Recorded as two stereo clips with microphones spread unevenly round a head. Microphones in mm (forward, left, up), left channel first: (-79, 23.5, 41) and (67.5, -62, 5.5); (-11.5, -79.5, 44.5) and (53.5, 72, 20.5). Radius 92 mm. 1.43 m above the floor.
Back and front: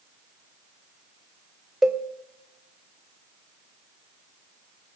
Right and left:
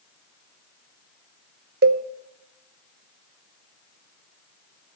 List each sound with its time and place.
1.8 s a cowbell: 70° left, 0.6 m